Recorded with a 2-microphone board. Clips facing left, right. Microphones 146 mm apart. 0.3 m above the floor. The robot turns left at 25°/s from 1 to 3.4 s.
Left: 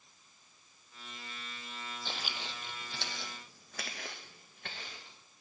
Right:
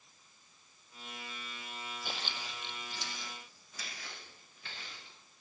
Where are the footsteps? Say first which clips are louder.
Left 2 dB; 10° right (ahead or behind), 0.7 m; by 5.2 s 55° left (ahead or behind), 2.5 m.